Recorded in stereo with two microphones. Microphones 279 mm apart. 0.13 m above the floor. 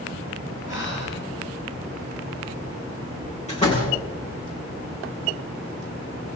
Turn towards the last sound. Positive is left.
turn(degrees=25)  # may be behind; listen again after turning